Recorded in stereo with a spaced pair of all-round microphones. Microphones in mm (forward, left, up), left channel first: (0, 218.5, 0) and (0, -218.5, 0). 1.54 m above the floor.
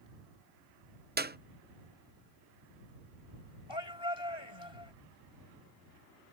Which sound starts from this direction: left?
A shout, at 3.7 s.